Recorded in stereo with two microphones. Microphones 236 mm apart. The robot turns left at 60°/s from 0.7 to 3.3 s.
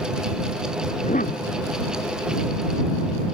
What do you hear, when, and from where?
0.9 s a cough: 160° left; by 1.5 s 125° left